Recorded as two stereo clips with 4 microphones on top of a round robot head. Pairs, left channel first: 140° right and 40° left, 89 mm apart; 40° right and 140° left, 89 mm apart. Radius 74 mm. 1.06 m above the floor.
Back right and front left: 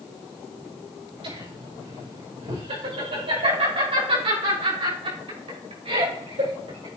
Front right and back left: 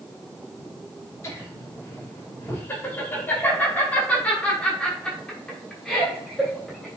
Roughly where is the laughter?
Ahead.